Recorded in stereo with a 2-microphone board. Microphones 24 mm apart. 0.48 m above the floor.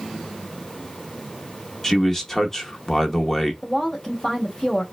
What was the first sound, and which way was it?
A man speaking, 15° left (ahead or behind).